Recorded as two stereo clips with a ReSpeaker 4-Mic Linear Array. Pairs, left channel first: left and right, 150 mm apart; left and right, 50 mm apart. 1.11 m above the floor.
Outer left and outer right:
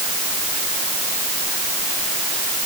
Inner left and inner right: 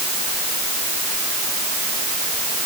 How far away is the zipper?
No zipper in this recording.